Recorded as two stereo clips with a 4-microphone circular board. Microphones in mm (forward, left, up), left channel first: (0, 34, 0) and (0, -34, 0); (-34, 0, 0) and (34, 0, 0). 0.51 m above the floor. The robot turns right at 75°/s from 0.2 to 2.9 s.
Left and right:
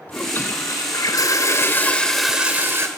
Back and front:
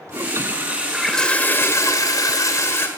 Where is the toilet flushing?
30° left, 2.5 m; by 2.9 s 130° right, 2.5 m.